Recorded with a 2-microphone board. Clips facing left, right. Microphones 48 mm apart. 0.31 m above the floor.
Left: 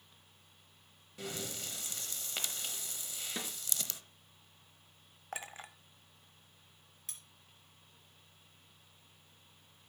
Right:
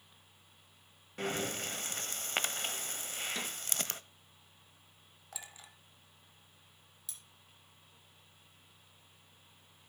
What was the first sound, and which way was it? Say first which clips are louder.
Breathing: right 7 dB; 45° right (ahead or behind).